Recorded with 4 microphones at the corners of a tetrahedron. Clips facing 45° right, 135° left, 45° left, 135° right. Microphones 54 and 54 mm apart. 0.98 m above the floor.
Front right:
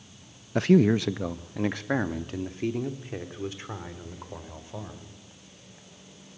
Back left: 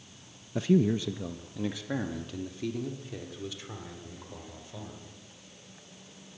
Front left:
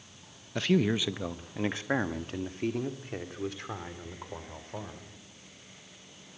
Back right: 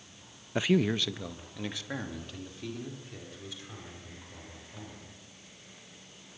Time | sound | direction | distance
0.6 | a man speaking | 60° right | 0.6 m